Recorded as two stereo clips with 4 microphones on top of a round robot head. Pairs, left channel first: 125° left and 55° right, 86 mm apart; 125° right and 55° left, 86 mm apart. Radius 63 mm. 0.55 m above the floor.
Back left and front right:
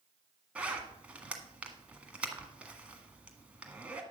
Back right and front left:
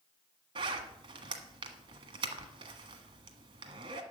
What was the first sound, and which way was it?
A zipper, 20° left.